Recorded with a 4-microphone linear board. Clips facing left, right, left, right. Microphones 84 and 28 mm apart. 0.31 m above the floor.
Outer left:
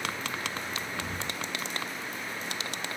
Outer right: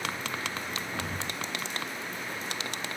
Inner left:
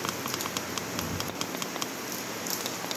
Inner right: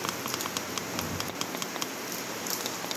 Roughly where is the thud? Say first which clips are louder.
Outer right 1 dB, even; right.